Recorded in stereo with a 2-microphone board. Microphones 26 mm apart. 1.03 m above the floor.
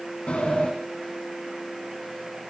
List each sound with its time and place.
0.3 s a sliding door: 55° left (ahead or behind), 1.5 m